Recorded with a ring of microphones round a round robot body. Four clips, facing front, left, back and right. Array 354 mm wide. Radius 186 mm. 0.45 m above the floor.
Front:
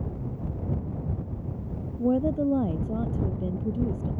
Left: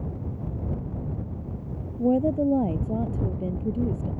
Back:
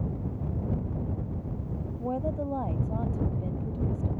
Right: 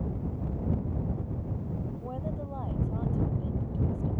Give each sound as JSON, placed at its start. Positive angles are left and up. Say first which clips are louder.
{"t": 2.0, "sound": "a woman speaking", "louder": "left 15 dB, front 8 dB", "azimuth_deg": 55}